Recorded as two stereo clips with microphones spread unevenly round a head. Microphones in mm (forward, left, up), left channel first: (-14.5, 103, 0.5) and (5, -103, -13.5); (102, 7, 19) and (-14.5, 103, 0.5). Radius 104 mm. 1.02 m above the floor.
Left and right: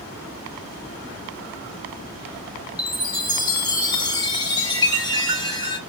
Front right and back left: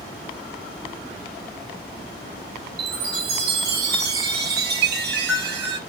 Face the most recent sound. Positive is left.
turn(degrees=160)